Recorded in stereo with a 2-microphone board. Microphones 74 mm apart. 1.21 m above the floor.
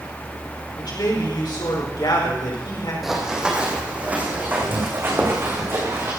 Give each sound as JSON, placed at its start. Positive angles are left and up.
{"t": 0.8, "sound": "a man speaking", "side_deg": 70, "distance_m": 5.0}
{"t": 3.0, "sound": "running footsteps", "side_deg": -5, "distance_m": 3.0}